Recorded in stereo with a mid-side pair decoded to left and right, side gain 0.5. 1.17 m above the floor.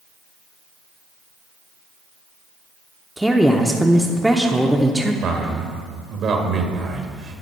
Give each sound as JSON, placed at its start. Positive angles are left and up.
{"t": 3.2, "sound": "a woman speaking", "azimuth_deg": -5, "distance_m": 0.8}
{"t": 5.2, "sound": "a man speaking", "azimuth_deg": -60, "distance_m": 1.5}